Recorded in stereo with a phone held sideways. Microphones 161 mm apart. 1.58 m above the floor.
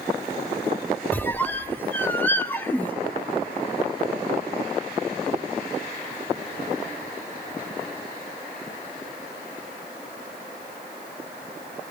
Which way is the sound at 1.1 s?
10° left (ahead or behind).